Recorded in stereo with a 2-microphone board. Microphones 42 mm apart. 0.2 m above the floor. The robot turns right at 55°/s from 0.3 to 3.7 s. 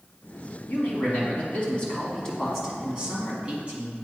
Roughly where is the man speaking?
Left.